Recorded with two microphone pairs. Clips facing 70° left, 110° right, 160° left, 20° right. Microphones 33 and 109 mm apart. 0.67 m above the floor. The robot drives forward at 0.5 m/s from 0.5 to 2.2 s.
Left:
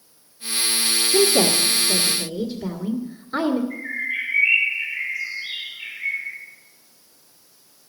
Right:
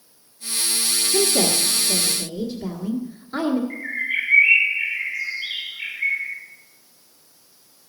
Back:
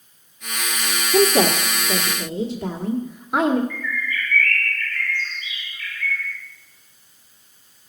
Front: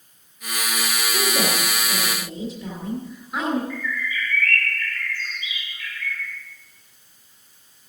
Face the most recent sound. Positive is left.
turn(degrees=-105)